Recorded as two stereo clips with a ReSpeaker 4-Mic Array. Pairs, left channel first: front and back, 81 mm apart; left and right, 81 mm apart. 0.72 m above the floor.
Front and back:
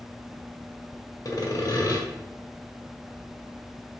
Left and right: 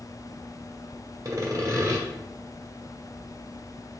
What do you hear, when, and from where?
1.2 s sawing: 45° right, 1.1 m